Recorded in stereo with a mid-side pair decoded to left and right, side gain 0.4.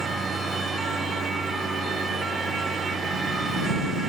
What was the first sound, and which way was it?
A lawn mower, 55° right.